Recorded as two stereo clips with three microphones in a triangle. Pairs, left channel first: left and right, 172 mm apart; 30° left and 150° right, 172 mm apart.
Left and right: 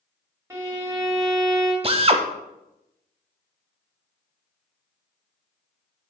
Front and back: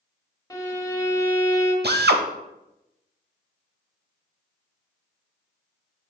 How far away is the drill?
About 0.6 m.